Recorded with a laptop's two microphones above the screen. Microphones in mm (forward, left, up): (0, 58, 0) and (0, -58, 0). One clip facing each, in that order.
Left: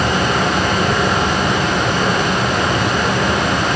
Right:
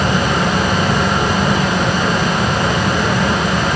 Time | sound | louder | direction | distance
0.0 | a fan | even | 70° left (ahead or behind) | 4 m